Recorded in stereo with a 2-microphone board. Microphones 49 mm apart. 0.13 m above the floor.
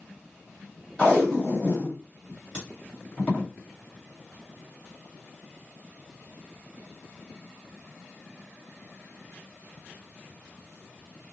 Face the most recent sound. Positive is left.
turn(degrees=25)  # may be behind; listen again after turning